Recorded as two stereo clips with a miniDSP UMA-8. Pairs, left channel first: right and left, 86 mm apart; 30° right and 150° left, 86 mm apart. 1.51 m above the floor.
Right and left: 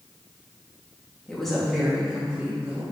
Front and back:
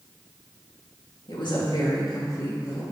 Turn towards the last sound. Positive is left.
turn(degrees=15)